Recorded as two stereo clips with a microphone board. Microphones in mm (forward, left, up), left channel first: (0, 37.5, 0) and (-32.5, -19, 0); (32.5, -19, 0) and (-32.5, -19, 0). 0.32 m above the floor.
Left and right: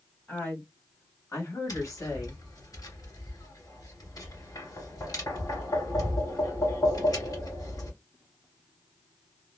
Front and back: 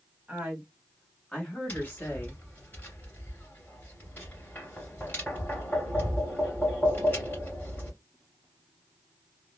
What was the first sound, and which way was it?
A woman speaking, 110° left.